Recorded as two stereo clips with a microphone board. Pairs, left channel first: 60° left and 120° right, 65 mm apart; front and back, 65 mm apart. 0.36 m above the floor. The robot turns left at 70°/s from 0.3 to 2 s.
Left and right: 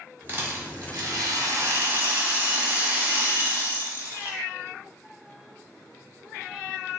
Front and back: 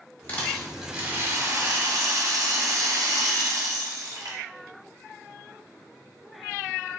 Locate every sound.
0.3 s a rattle: 60° right, 1.1 m; by 4.4 s straight behind, 1.1 m